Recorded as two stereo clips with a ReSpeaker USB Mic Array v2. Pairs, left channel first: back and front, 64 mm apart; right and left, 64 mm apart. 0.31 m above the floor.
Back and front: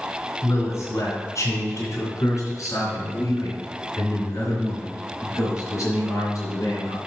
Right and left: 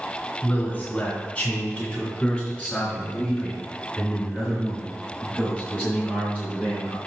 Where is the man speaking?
155° right, 2.5 m; by 7.0 s 155° left, 5 m.